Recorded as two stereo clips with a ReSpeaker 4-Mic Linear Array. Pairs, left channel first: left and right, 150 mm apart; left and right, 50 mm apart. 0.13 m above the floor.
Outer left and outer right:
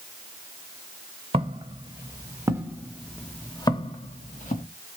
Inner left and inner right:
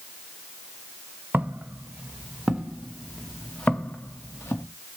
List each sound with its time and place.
1.3 s footsteps: 40° right (ahead or behind), 1.5 m; by 4.7 s 60° left (ahead or behind), 1.1 m